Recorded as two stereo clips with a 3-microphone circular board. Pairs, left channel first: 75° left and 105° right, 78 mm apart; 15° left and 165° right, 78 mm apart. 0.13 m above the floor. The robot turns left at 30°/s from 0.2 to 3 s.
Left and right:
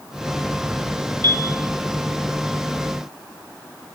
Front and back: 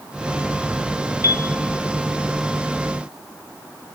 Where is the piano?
115° right, 0.6 m; by 1.5 s 125° right, 0.6 m.